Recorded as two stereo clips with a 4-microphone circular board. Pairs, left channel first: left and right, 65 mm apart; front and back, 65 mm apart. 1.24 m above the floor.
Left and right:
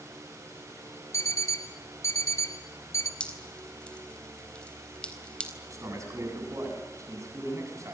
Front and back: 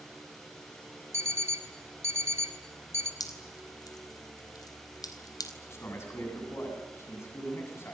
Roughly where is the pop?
No pop in this recording.